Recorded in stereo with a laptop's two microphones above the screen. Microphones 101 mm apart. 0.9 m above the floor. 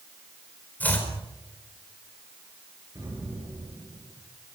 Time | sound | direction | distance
0.8 | chopping | 15° left (ahead or behind) | 4.5 m
3.0 | an explosion | 40° right (ahead or behind) | 7.5 m